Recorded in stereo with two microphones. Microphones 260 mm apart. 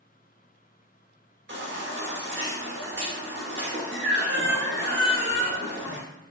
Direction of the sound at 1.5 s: 45° right (ahead or behind).